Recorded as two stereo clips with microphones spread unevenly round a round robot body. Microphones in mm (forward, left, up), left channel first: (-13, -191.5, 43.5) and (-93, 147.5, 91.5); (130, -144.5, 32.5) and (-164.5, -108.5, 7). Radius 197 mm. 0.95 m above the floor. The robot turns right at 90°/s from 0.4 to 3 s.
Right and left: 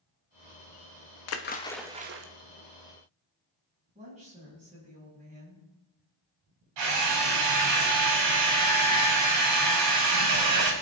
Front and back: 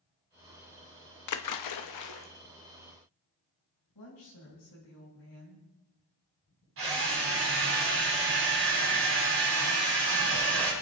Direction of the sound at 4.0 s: 30° left.